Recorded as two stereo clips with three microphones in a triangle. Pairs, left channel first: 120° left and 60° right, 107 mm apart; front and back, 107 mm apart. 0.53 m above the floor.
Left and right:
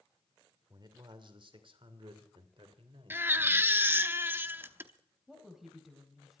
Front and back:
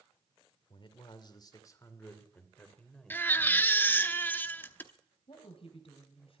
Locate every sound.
0.7 s a man speaking: 20° right, 2 m; by 3.7 s 90° right, 3 m
3.1 s a baby crying: 35° right, 0.8 m
5.3 s a woman speaking: 25° left, 2.5 m